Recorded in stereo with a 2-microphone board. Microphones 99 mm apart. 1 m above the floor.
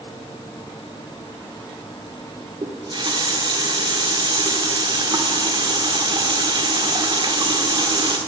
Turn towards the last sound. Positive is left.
turn(degrees=-55)  # may be behind; listen again after turning